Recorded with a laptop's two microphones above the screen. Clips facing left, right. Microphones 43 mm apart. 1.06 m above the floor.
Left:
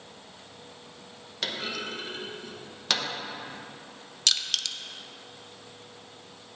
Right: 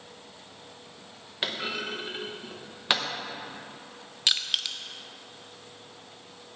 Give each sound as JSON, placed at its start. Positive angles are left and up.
{"t": 1.4, "sound": "a clunk", "side_deg": -20, "distance_m": 1.0}
{"t": 4.3, "sound": "crushing", "side_deg": -15, "distance_m": 0.5}